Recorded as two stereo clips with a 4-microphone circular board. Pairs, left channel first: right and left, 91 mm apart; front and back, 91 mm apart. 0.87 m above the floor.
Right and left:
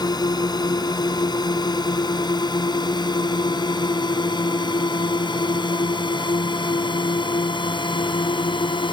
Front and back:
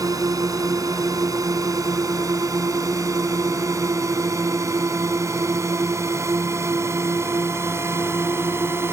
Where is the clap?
I don't hear a clap.